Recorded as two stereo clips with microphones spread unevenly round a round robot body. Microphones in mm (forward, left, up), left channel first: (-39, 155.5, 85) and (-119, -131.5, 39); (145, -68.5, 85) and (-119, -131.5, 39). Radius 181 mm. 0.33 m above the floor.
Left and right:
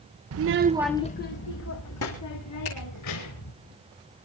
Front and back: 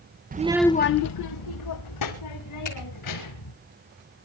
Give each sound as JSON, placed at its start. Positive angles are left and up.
{"t": 0.3, "sound": "a child speaking", "azimuth_deg": -120, "distance_m": 0.8}
{"t": 2.6, "sound": "a finger snap", "azimuth_deg": 50, "distance_m": 4.5}